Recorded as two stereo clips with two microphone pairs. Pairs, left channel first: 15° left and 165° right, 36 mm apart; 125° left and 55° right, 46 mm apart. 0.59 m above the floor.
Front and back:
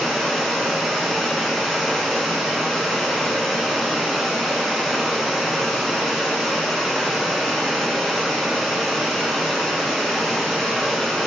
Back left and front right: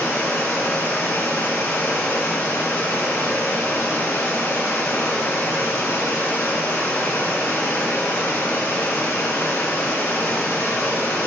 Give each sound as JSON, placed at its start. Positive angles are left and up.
{"t": 0.0, "sound": "running water", "azimuth_deg": 110, "distance_m": 3.0}